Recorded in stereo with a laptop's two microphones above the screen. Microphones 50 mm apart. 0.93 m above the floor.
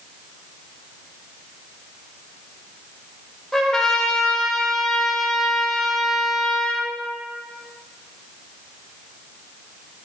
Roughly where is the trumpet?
Centre.